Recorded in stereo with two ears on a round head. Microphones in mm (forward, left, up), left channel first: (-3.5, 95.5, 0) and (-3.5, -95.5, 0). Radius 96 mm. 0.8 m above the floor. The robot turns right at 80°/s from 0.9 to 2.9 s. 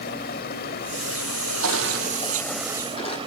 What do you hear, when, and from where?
0.0 s running water: 45° left, 1.2 m; by 3.3 s 155° right, 1.2 m
1.6 s crushing: 75° right (ahead or behind), 5 m; by 3.2 s 25° left (ahead or behind), 5 m